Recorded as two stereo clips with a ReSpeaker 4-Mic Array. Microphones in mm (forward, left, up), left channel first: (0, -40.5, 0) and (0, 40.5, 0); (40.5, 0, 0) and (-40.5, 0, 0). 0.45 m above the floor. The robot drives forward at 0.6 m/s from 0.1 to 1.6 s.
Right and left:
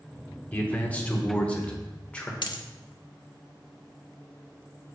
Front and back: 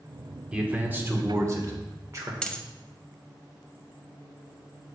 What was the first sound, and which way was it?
A man speaking, 125° right.